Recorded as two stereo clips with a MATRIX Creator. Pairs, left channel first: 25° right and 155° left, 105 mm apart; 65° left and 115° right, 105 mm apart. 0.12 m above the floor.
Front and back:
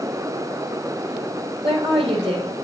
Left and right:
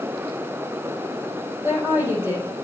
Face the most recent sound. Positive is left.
turn(degrees=180)